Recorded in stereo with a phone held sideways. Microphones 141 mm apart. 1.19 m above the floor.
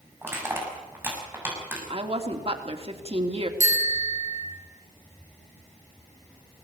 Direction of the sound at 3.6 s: 60° left (ahead or behind).